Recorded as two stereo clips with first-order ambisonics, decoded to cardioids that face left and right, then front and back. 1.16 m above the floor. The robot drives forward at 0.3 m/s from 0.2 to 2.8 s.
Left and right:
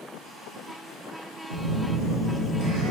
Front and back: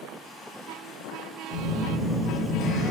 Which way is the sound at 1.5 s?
85° right.